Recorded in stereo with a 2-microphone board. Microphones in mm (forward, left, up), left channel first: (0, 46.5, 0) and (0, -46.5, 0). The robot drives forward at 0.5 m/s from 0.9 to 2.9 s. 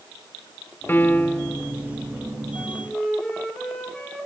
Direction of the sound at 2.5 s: 5° left (ahead or behind).